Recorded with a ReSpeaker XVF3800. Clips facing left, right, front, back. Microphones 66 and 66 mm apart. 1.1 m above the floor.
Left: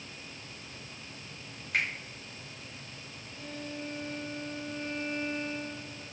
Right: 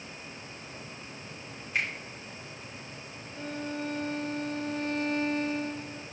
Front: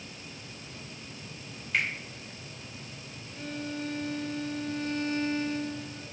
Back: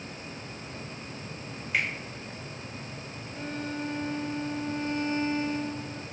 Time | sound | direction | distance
1.7 | a finger snap | 95° left | 4.5 m
3.4 | a violin | 120° right | 1.4 m